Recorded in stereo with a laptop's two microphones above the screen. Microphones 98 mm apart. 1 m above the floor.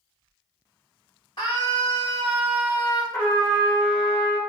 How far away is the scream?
About 1.8 m.